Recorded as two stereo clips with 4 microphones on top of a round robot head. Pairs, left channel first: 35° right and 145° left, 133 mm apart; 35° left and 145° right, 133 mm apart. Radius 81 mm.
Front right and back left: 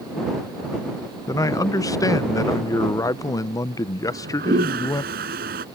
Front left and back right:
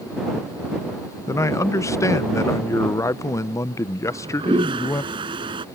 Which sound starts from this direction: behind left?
A toilet flushing, at 4.0 s.